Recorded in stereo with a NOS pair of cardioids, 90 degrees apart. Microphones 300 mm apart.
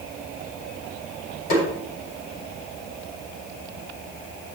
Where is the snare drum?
70° left, 8.5 m.